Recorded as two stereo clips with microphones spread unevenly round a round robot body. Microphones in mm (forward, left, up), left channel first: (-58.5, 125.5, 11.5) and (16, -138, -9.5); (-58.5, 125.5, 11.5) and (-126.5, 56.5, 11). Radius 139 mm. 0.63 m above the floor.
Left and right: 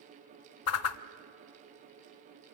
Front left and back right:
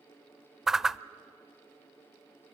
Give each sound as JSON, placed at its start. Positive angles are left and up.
{"t": 0.7, "sound": "a whoosh", "azimuth_deg": 140, "distance_m": 0.6}